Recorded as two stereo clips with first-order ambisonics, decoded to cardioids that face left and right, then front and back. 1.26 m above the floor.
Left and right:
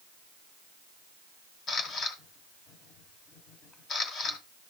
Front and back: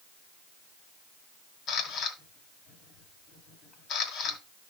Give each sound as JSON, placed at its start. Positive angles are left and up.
{"t": 1.7, "sound": "a camera shutter", "azimuth_deg": 40, "distance_m": 1.8}